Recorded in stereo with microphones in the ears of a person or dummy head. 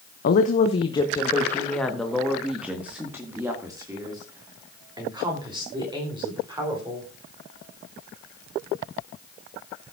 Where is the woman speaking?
55° left (ahead or behind), 0.8 m; by 7.1 s 20° right (ahead or behind), 4 m.